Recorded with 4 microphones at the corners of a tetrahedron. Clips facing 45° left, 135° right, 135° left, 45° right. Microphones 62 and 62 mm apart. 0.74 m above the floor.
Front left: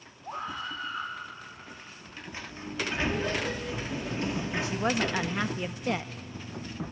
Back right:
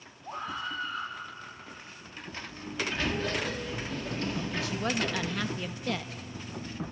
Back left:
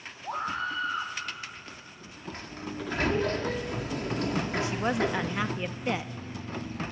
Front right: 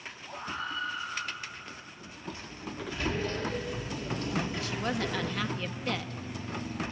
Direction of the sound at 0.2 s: 125° left.